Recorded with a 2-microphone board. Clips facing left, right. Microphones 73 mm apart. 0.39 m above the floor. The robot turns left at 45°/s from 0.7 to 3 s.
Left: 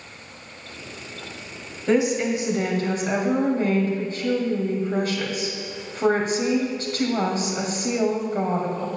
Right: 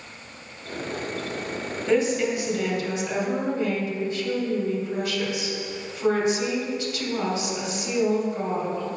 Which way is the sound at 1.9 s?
175° left.